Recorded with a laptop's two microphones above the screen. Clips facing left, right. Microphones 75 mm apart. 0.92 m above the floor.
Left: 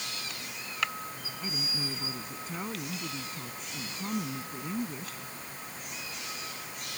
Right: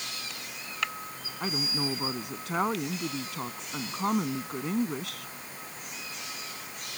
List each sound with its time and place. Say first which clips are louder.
1.4 s a woman speaking: right 6 dB; 75° right (ahead or behind)